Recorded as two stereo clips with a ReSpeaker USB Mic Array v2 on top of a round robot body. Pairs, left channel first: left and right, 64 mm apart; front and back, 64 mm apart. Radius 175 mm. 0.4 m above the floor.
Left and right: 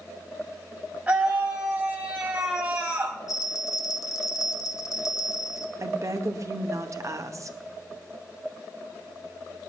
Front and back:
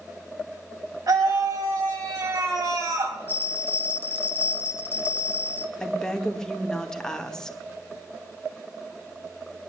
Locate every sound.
1.1 s a scream: 160° right, 3.5 m
3.3 s a bell: 55° left, 0.8 m
5.8 s a woman speaking: 80° right, 1.9 m